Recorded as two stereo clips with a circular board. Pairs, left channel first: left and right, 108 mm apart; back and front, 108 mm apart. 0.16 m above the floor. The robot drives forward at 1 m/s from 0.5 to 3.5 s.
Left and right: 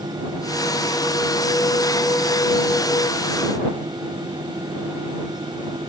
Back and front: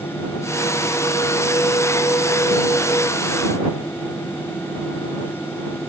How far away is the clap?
I don't hear a clap.